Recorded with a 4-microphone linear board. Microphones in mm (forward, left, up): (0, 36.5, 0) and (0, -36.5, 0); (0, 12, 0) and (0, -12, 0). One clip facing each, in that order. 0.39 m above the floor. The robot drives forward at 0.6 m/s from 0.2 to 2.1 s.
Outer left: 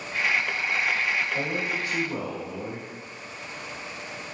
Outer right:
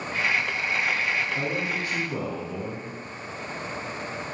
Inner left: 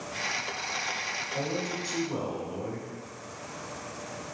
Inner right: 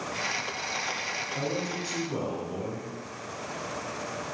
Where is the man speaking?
20° left (ahead or behind), 1.1 m; by 2.9 s 15° left (ahead or behind), 1.3 m.